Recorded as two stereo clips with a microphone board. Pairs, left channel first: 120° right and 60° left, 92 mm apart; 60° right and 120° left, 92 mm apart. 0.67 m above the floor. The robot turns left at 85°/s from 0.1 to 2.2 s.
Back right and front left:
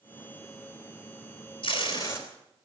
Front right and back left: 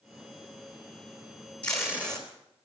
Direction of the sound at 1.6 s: 135° right.